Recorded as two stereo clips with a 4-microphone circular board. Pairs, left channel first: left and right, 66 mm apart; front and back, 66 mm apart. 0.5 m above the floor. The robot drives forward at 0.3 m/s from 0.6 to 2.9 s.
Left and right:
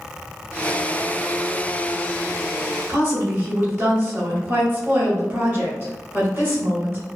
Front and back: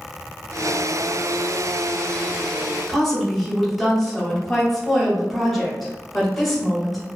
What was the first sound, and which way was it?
A woman speaking, 90° right.